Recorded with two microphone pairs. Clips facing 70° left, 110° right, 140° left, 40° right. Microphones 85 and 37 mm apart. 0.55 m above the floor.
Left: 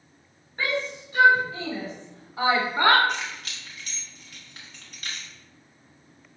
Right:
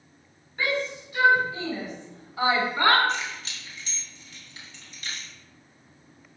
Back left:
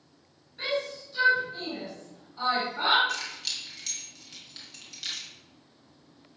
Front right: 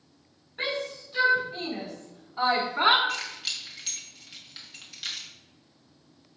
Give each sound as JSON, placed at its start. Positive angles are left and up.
{"t": 0.6, "sound": "a shout", "azimuth_deg": 15, "distance_m": 5.0}
{"t": 3.1, "sound": "keys jangling", "azimuth_deg": 35, "distance_m": 4.0}